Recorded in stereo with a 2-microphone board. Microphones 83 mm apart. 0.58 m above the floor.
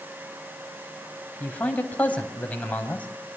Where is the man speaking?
20° left (ahead or behind), 3.5 m.